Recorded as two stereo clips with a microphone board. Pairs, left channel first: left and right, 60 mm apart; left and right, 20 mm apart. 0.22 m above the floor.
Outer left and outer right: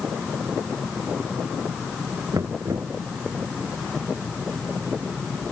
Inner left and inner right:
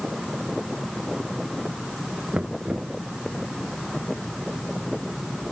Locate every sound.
2.3 s knocking: 65° right (ahead or behind)